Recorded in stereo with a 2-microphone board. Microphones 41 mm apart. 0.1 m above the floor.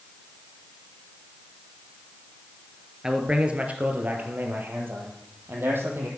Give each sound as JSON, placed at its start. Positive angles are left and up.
{"t": 3.0, "sound": "a man speaking", "side_deg": -15, "distance_m": 2.5}